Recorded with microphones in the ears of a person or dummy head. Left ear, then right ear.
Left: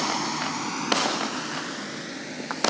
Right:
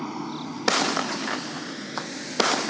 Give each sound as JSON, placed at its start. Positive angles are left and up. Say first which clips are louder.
{"t": 0.0, "sound": "a vehicle", "louder": "left 7 dB", "side_deg": 75}